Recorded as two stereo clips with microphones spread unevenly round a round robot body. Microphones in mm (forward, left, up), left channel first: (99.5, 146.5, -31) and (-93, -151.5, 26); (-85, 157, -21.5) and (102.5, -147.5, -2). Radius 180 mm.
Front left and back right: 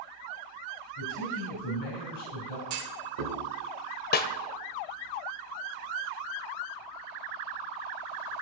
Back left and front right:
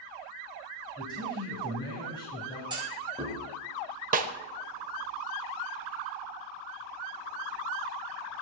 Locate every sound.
1.0 s a man speaking: 45° left, 2.5 m
2.7 s a clunk: 135° right, 1.8 m
4.1 s a snare drum: 5° left, 0.6 m